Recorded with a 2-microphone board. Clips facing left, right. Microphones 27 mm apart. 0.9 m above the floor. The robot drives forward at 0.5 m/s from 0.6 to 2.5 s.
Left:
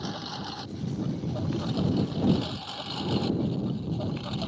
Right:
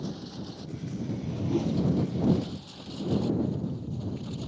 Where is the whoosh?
55° right (ahead or behind).